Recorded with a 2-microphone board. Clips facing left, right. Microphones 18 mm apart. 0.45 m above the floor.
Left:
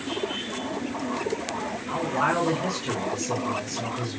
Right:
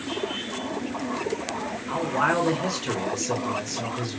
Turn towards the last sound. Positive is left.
turn(degrees=-65)  # may be behind; listen again after turning